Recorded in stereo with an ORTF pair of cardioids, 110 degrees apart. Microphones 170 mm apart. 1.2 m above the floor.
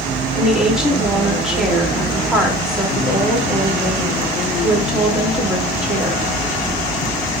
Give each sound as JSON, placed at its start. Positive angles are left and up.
{"t": 0.3, "sound": "a woman speaking", "azimuth_deg": -5, "distance_m": 3.0}